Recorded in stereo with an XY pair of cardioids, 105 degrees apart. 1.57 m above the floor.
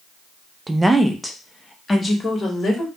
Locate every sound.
0.7 s a woman speaking: 15° right, 0.5 m; by 2.9 s 35° left, 1.4 m